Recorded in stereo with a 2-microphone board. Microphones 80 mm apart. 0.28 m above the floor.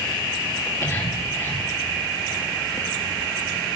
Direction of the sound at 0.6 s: 45° left (ahead or behind).